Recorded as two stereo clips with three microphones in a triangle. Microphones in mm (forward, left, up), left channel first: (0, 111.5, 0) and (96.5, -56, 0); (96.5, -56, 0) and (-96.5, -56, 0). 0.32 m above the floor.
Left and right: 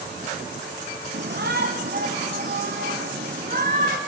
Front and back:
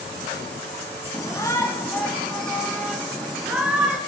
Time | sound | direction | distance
1.1 | a shout | 70° right | 1.9 m